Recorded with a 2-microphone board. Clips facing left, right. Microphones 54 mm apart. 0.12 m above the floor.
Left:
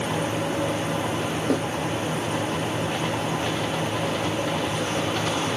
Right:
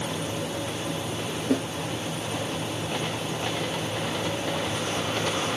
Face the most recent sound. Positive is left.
turn(degrees=60)  # may be behind; listen again after turning